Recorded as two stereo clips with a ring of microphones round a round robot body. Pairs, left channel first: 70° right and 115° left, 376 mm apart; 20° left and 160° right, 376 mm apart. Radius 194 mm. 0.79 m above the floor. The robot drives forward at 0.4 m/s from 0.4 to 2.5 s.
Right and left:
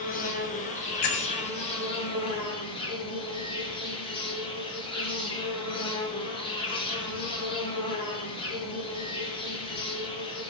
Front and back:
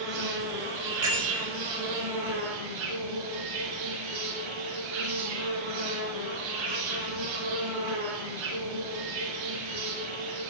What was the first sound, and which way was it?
An insect, 135° right.